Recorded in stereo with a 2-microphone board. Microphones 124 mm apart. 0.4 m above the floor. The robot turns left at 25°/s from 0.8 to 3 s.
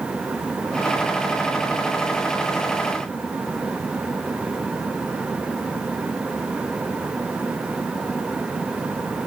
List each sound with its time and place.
Only background noise.